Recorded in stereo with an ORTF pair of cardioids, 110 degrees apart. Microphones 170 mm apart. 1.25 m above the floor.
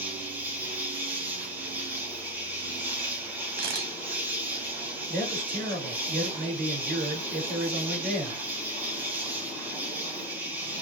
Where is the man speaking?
55° right, 2.5 m.